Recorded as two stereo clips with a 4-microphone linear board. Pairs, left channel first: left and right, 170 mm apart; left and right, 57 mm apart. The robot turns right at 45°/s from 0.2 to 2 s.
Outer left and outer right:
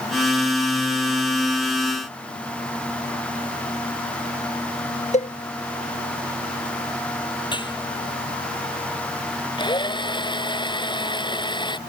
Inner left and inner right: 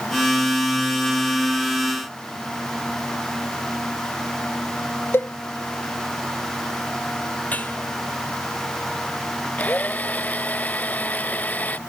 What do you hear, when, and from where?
5.1 s a cowbell: 40° left (ahead or behind)
7.5 s dishes clattering: 30° left (ahead or behind)
9.6 s a drill: 30° left (ahead or behind)